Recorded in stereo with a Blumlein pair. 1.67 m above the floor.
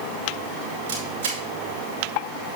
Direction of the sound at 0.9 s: 60° right.